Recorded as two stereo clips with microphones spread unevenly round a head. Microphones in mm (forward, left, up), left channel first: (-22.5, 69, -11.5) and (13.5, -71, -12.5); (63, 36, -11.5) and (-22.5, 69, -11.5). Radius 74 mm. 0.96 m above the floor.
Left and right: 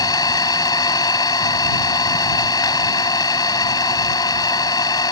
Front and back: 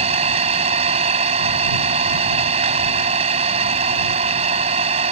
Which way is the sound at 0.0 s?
170° left.